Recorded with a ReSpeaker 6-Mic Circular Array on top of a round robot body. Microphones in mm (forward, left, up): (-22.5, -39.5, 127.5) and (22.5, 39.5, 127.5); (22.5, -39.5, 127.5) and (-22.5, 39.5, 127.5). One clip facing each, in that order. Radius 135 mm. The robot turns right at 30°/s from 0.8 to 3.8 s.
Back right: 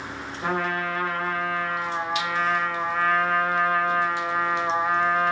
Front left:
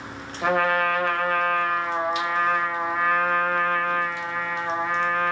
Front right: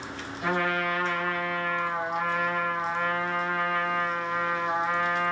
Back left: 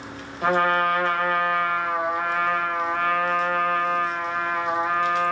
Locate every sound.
0.4 s a trumpet: 75° left, 0.7 m; by 5.3 s 165° left, 0.7 m